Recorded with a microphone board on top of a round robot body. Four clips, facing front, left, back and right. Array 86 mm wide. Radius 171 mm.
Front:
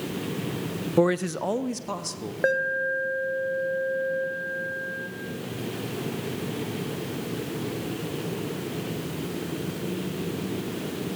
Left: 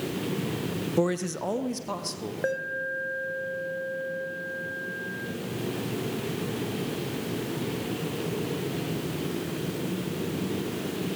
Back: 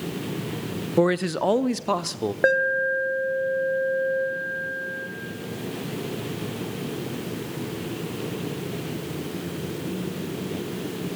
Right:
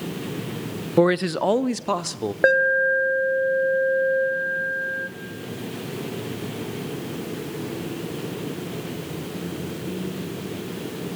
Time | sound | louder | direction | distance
1.0 | a man speaking | right 9 dB, back 2 dB | 85° right | 0.8 m
2.4 | an alarm | right 13 dB, back 3 dB | 110° right | 2 m